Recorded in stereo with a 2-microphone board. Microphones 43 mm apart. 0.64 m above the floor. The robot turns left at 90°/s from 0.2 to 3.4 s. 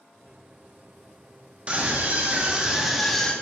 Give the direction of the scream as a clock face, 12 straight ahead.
2 o'clock.